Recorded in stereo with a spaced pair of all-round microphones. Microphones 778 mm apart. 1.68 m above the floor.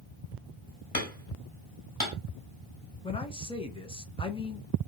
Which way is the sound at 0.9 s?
25° left (ahead or behind).